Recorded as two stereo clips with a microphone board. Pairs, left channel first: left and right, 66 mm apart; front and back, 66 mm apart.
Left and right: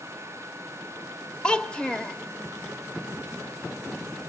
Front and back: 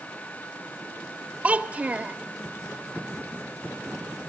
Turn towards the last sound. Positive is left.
turn(degrees=145)